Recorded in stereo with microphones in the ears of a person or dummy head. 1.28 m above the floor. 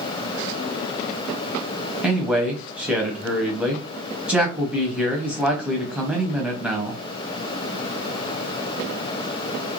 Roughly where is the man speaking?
Centre.